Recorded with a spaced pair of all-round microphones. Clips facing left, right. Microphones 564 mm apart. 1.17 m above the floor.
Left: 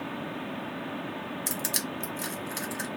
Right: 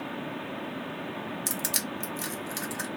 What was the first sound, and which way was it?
Crushing, 30° right (ahead or behind).